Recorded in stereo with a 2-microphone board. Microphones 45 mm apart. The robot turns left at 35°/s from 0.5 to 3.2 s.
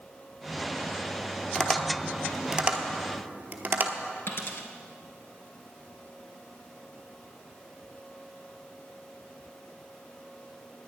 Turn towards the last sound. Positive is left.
turn(degrees=55)  # may be behind; listen again after turning